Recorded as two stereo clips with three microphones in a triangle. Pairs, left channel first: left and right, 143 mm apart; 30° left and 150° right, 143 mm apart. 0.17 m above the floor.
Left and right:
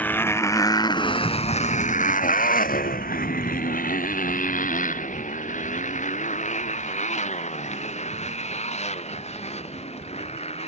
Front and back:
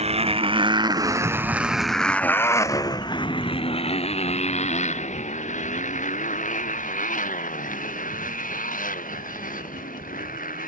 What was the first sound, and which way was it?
A motorcycle, 170° left.